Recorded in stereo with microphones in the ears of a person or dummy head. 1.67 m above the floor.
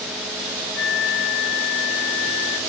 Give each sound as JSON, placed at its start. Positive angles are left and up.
{"t": 0.8, "sound": "a flute", "side_deg": 65, "distance_m": 0.7}